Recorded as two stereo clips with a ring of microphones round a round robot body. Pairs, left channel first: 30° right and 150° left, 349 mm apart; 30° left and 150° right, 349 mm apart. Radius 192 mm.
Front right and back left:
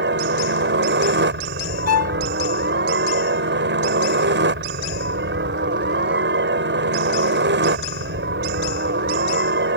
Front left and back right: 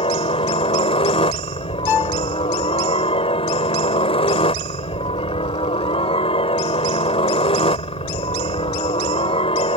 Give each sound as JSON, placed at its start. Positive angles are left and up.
{"t": 0.0, "sound": "a helicopter", "azimuth_deg": 100}
{"t": 1.9, "sound": "a violin", "azimuth_deg": 15}